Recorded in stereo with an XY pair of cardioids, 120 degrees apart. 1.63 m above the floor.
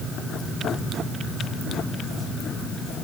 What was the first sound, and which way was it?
Only background noise.